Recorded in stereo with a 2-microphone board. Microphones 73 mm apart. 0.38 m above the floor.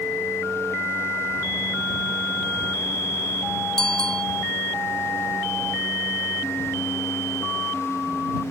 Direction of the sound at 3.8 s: 10° left (ahead or behind).